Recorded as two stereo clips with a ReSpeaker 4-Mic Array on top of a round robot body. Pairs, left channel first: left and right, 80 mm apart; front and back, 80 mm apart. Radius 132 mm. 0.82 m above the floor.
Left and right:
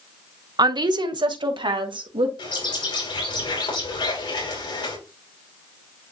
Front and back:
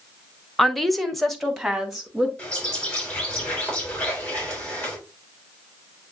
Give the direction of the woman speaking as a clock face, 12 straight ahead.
3 o'clock.